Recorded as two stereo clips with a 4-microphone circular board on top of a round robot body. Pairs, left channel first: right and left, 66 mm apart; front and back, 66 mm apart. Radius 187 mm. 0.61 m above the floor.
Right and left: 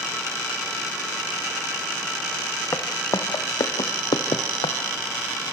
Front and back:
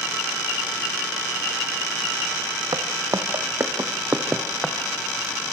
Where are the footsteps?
145° right, 1.4 m; by 4.8 s 90° right, 1.2 m.